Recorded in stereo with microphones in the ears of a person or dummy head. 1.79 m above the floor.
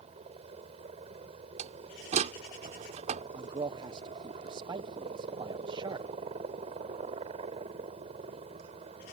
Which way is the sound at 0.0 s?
35° right (ahead or behind).